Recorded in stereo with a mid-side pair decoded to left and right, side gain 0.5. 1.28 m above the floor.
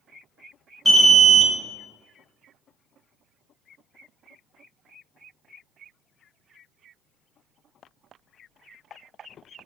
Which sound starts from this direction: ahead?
An alarm, at 0.8 s.